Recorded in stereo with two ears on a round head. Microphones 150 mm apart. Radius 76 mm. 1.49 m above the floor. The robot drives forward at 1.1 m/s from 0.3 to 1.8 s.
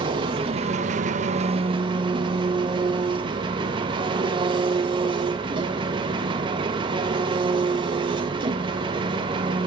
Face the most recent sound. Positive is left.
turn(degrees=-30)  # may be behind; listen again after turning